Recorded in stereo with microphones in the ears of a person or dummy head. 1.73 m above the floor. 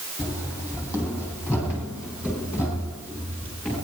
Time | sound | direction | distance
0.2 | running footsteps | 10° right (ahead or behind) | 4.5 m